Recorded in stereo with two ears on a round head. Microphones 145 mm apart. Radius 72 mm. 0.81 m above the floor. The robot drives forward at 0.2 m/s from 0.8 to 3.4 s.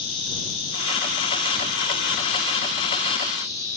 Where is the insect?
35° left (ahead or behind), 1.3 m; by 3.8 s 25° left (ahead or behind), 1.8 m.